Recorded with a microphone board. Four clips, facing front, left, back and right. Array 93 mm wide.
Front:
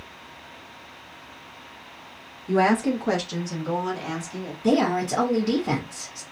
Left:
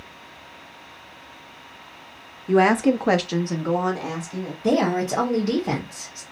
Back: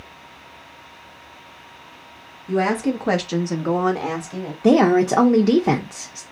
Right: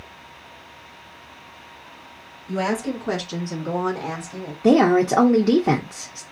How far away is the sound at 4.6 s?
About 0.6 m.